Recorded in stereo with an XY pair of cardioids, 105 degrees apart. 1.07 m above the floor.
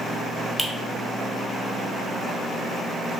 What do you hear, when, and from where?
0.6 s a finger snap: 10° left, 0.8 m